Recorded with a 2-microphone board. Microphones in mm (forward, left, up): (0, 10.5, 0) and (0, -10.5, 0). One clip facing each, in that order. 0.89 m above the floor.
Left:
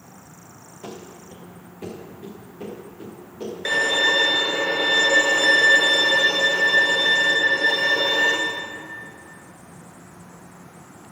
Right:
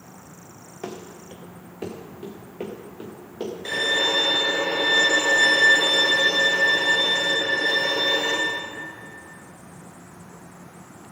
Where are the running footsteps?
70° right (ahead or behind), 2.5 m; by 3.5 s 80° right, 4.5 m.